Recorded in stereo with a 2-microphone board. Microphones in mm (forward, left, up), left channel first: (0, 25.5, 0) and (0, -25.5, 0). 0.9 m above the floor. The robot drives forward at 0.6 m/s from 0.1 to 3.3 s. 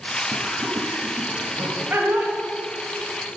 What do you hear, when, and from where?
0.3 s laughter: 50° right (ahead or behind), 1.4 m; by 2.3 s 40° right (ahead or behind), 1.7 m